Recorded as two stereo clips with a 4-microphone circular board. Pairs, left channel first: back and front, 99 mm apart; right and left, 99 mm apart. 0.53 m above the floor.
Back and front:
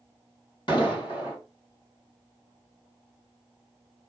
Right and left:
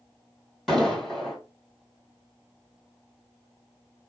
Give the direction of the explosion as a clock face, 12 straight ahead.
6 o'clock.